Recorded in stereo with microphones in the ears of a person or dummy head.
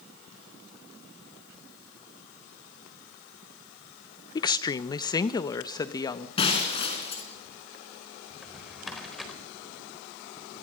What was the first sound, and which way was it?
A woman speaking, 30° left (ahead or behind).